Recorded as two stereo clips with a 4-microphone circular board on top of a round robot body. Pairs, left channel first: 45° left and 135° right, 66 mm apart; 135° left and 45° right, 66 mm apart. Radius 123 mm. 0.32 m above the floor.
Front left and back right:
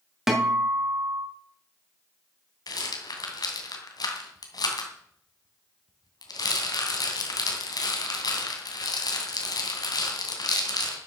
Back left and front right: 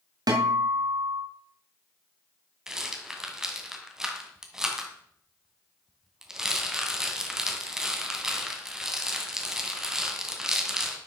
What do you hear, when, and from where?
0.3 s a guitar: 50° right, 3.5 m
2.7 s a rattle: 35° left, 2.5 m